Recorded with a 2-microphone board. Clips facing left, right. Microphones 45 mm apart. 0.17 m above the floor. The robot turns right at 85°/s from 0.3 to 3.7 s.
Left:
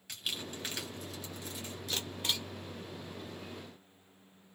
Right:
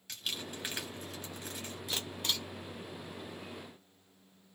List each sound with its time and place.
0.1 s crumpling: 10° left (ahead or behind), 1.5 m; by 1.8 s 45° right (ahead or behind), 1.5 m
1.9 s a camera shutter: 20° right (ahead or behind), 1.1 m; by 2.5 s 25° left (ahead or behind), 1.1 m